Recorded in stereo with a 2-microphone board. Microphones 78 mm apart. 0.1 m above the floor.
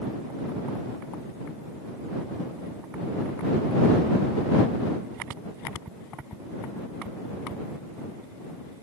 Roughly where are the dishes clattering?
No dishes clattering in this recording.